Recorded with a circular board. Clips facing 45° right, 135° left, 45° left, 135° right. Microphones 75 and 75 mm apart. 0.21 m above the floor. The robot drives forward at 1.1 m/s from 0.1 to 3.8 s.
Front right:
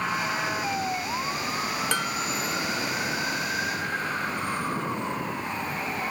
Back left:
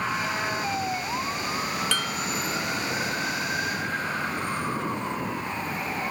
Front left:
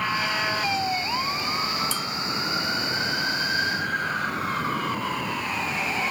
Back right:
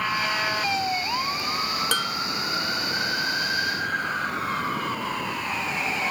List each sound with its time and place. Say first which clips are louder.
1.9 s dishes clattering: front right 1 dB, back right 3 dB; 115° right; by 2.3 s 120° right